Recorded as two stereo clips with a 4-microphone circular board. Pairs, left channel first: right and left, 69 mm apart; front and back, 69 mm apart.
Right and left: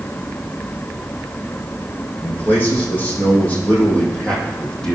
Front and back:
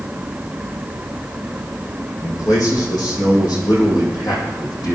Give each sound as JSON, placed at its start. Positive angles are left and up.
{"t": 2.2, "sound": "a man speaking", "azimuth_deg": -30, "distance_m": 7.5}